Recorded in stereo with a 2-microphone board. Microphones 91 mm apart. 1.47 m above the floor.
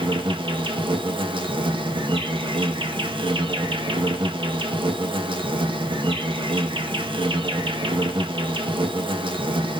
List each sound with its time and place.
0.0 s an insect: 60° right (ahead or behind), 0.9 m